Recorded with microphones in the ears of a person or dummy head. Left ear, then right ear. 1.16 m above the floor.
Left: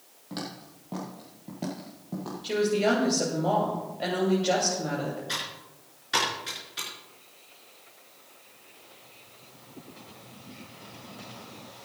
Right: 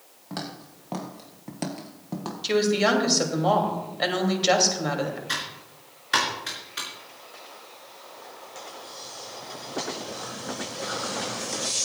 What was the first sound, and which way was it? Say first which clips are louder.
Footsteps: right 2 dB; 30° right (ahead or behind).